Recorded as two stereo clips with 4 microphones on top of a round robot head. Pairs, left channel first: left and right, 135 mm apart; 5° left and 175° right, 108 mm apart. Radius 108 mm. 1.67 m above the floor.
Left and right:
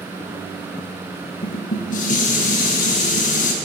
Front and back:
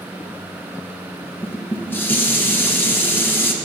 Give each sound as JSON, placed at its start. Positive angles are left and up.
{"t": 1.4, "sound": "dishes clattering", "azimuth_deg": 70, "distance_m": 1.2}